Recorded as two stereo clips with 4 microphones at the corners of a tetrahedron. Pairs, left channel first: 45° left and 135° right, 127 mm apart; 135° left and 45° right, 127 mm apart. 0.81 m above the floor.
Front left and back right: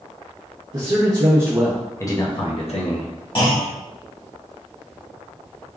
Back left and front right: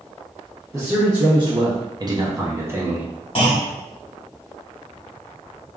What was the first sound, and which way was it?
A man speaking, 100° right.